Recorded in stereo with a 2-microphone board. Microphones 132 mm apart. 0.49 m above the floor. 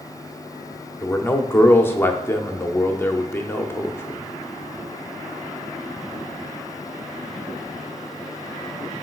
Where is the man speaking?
15° left (ahead or behind), 0.7 m.